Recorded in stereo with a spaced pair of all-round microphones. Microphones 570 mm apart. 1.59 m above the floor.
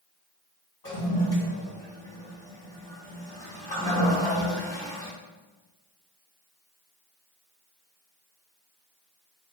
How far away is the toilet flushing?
About 2.5 m.